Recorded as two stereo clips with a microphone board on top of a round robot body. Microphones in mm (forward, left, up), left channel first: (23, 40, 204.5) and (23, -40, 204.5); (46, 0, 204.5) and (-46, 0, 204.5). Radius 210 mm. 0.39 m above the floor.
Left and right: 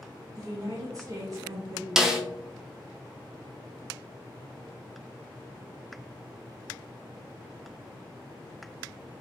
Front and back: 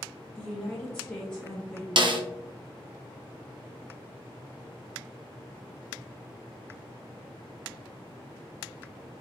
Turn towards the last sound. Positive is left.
turn(degrees=-175)